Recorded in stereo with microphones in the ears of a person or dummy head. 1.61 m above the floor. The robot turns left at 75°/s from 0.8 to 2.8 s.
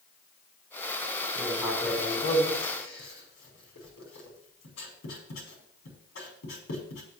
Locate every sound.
1.4 s writing: 15° right (ahead or behind), 5.5 m; by 7.0 s 85° left, 5.5 m